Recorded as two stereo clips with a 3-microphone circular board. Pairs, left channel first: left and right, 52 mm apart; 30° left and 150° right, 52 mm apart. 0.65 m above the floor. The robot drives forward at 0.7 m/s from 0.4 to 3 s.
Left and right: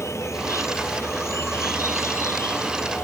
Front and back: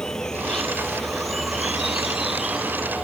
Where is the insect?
110° left; by 3.0 s 130° left.